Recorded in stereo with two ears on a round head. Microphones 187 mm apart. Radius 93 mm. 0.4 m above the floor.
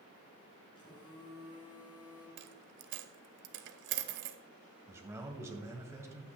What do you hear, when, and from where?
0.8 s a phone buzzing: 25° left (ahead or behind), 6 m
2.4 s a dropped coin: 55° right (ahead or behind), 0.8 m
4.9 s a man speaking: 15° right (ahead or behind), 2.0 m